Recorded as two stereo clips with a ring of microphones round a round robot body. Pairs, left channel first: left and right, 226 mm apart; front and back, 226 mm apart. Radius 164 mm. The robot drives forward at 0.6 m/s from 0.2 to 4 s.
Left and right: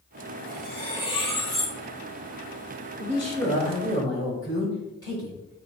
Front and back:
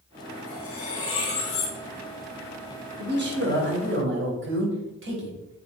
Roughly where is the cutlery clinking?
Ahead.